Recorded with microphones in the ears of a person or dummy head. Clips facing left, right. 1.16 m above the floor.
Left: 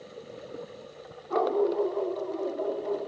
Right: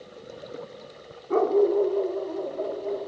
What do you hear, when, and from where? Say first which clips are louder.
1.3 s a dog barking: right 5 dB; 35° right (ahead or behind), 1.0 m; by 3.1 s 25° right (ahead or behind), 3 m